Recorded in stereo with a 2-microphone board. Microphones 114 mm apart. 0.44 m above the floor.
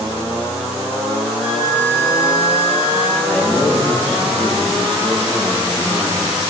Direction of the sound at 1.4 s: 10° right (ahead or behind).